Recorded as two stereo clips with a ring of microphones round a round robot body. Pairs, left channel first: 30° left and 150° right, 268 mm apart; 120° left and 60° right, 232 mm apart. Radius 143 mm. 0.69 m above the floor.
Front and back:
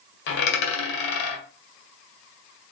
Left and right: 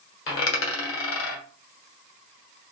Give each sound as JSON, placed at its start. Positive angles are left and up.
{"t": 0.3, "sound": "a dropped coin", "azimuth_deg": 85, "distance_m": 1.3}